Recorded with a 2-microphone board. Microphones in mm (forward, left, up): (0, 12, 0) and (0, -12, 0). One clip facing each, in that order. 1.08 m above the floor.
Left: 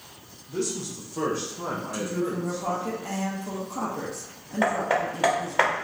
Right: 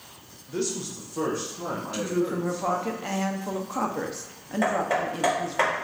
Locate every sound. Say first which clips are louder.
0.5 s a man speaking: even; 25° right (ahead or behind), 0.7 m; by 2.9 s 40° left (ahead or behind), 1.4 m
1.9 s a woman speaking: right 4 dB; 35° right (ahead or behind), 0.5 m
4.6 s hammering: left 1 dB; 20° left (ahead or behind), 0.7 m